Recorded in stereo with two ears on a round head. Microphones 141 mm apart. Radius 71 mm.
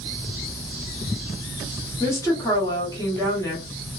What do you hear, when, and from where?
2.0 s a woman speaking: 20° left (ahead or behind), 1.2 m